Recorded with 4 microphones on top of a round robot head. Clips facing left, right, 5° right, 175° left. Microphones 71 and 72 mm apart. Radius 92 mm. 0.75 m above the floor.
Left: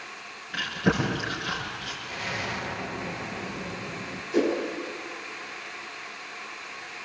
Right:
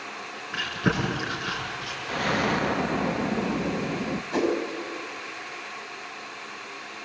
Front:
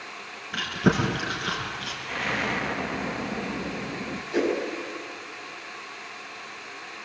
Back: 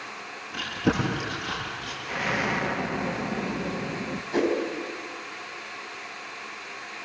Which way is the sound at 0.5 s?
20° right.